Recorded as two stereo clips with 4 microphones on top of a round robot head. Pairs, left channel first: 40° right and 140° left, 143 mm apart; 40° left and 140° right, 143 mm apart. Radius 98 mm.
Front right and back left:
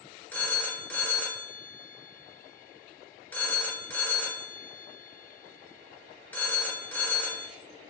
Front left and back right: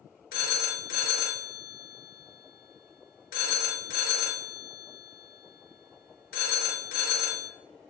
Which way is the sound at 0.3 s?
40° left.